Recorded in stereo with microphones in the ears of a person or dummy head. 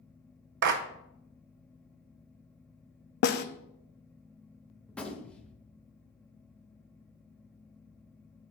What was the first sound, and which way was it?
A clap, 60° right (ahead or behind).